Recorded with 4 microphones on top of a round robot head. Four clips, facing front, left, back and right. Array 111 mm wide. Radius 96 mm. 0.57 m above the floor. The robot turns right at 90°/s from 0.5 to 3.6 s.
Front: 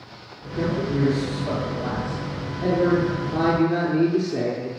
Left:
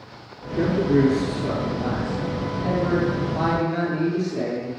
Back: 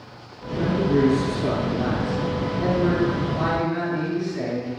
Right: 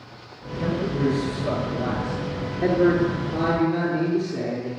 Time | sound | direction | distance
0.6 | a man speaking | 80° left | 9.5 m